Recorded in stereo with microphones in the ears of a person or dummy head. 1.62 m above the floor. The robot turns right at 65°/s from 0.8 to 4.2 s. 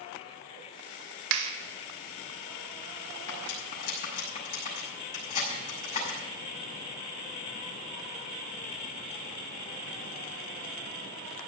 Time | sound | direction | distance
1.3 | a clap | 75° right (ahead or behind) | 1.9 m
3.3 | cutlery clinking | 75° left (ahead or behind) | 6.5 m